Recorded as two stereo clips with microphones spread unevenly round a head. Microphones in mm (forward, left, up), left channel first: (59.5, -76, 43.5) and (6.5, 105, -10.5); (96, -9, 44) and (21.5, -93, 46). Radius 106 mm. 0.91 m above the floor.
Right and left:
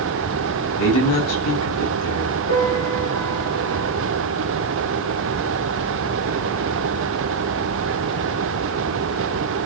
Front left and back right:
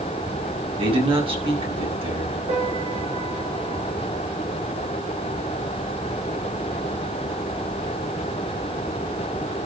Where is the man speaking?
95° right, 8.5 m.